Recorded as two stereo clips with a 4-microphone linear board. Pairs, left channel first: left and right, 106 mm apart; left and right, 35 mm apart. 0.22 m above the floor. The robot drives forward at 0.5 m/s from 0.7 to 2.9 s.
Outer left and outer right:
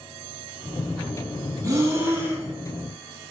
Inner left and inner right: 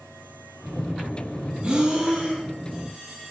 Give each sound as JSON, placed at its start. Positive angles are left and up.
{"t": 1.6, "sound": "breathing", "side_deg": -30, "distance_m": 0.7}